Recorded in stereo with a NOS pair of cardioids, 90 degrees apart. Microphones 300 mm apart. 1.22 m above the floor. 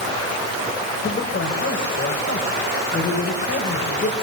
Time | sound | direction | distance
1.0 | a man speaking | 40° left | 6 m